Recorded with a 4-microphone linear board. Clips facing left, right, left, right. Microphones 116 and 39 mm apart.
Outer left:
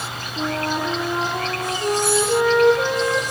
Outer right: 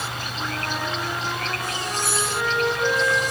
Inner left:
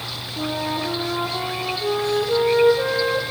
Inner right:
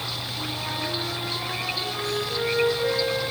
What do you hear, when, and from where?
0.4 s a flute: 65° left (ahead or behind), 4 m